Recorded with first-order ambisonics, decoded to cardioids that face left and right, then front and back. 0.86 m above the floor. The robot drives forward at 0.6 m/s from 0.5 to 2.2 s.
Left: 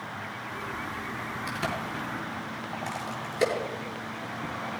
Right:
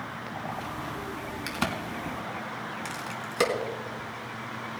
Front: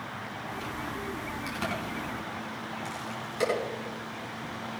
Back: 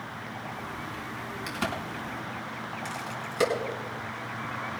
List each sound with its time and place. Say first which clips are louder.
1.5 s a crack: right 2 dB, back 2 dB; 95° right, 4.5 m; by 3.5 s 105° right, 4.5 m